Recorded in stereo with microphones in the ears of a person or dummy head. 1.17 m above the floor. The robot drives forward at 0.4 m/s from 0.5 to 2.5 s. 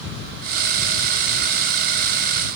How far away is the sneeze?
No sneeze in this recording.